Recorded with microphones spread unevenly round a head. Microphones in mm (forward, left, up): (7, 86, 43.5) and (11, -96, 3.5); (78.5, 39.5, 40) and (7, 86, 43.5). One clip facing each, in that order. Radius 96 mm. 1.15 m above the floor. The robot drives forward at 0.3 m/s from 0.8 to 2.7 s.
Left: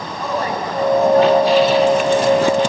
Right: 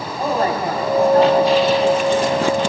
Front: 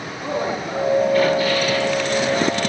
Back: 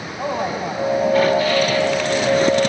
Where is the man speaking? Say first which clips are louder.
Right 3 dB, back 1 dB; 150° right, 7.5 m.